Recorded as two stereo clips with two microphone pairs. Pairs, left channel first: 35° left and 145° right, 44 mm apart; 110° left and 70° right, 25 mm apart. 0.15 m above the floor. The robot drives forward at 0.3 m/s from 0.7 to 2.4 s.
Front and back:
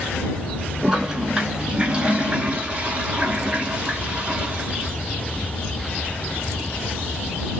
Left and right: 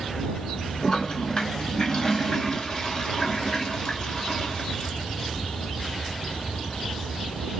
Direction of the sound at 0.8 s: 145° left.